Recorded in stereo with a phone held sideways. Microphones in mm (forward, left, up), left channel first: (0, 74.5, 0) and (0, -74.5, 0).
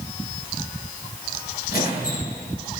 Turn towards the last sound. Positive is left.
turn(degrees=85)